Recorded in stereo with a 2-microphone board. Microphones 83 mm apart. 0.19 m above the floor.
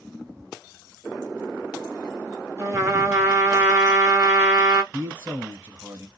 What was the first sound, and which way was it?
A trumpet, 35° right (ahead or behind).